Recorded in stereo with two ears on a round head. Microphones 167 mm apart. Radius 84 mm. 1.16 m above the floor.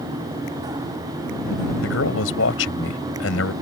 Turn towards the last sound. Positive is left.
turn(degrees=75)  # may be behind; listen again after turning